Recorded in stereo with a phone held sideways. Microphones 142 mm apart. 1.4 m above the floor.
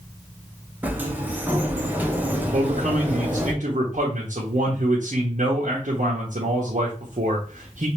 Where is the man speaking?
60° right (ahead or behind), 0.9 m.